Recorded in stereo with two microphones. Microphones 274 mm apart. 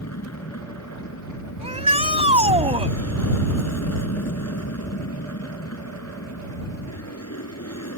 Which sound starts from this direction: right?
A shout, at 1.6 s.